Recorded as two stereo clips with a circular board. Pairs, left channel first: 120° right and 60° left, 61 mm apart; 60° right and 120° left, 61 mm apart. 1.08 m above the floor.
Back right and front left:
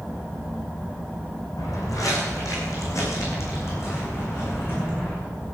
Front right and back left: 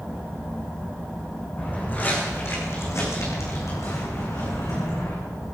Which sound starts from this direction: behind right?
Footsteps, at 1.6 s.